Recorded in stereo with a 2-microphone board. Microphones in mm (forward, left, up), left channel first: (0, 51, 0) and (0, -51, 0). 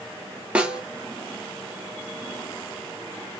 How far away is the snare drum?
About 0.7 m.